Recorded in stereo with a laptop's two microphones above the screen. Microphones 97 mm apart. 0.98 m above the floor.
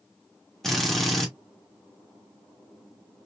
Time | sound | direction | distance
0.6 | a drill | 5° left (ahead or behind) | 1.4 m